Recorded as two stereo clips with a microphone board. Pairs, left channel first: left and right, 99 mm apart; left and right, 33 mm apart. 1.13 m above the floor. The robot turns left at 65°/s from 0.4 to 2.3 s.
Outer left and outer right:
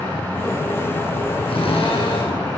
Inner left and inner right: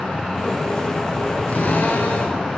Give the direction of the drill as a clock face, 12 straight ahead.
8 o'clock.